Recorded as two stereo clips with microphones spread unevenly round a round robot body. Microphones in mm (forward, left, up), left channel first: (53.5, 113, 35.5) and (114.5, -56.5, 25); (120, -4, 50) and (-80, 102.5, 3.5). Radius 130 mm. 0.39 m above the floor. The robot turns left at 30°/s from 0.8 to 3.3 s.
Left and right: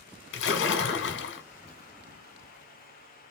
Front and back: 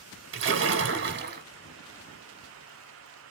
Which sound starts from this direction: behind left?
A splash, at 0.3 s.